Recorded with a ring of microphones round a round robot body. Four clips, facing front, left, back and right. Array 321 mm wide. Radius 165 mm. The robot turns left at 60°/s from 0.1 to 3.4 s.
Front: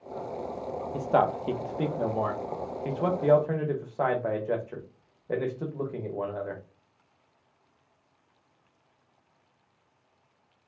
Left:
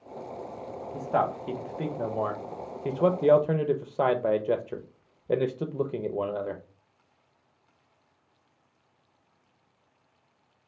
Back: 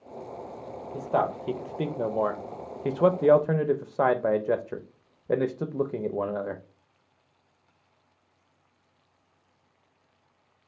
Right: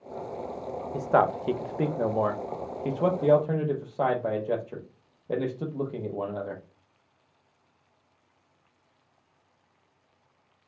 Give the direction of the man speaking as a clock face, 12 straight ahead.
2 o'clock.